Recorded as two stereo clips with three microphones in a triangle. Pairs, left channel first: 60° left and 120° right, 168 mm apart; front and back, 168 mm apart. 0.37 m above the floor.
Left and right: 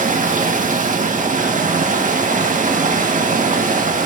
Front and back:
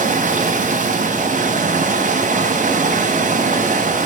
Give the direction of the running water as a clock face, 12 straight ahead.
5 o'clock.